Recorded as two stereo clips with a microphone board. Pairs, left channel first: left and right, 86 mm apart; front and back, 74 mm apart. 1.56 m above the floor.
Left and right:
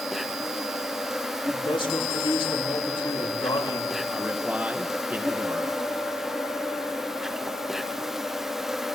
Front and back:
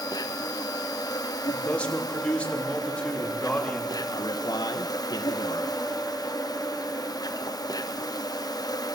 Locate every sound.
0.0 s an insect: 5° right, 1.2 m
1.5 s a man speaking: 75° left, 3.5 m
4.1 s a man speaking: 20° right, 2.0 m